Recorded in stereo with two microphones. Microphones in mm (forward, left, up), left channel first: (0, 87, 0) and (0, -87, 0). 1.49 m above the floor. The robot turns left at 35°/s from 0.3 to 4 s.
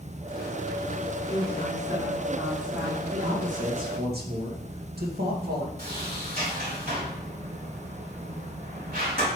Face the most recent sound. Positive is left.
turn(degrees=-55)  # may be behind; listen again after turning